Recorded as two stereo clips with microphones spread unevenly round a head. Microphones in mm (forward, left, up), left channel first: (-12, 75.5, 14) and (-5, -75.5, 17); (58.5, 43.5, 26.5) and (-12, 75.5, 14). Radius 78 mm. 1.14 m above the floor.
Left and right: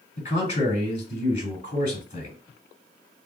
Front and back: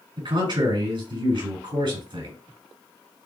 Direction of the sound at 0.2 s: 145° left.